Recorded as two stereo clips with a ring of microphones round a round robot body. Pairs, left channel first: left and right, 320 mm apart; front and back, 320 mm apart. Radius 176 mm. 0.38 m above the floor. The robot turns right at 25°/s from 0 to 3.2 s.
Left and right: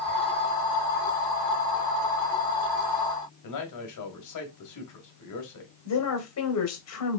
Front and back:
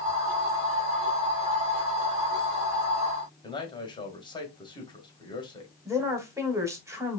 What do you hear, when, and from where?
3.4 s a man speaking: 75° left, 2 m
5.8 s a woman speaking: 100° left, 1.9 m